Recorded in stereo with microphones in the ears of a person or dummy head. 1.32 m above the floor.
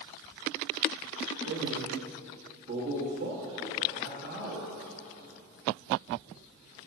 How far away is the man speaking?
About 1.7 m.